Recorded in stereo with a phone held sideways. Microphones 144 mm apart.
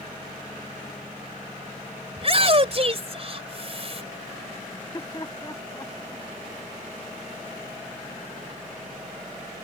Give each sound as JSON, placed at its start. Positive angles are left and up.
{"t": 2.2, "sound": "a shout", "side_deg": -45}
{"t": 4.7, "sound": "laughter", "side_deg": 30}